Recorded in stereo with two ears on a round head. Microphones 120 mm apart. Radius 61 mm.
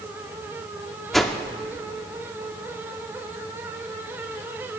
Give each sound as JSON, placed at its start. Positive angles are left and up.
{"t": 1.1, "sound": "a whoosh", "side_deg": 0, "distance_m": 0.8}